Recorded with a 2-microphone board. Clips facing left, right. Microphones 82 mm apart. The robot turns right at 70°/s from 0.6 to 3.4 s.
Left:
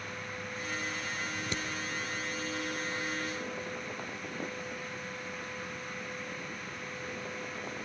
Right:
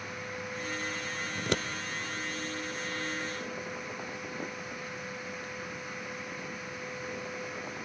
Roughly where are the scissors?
Right.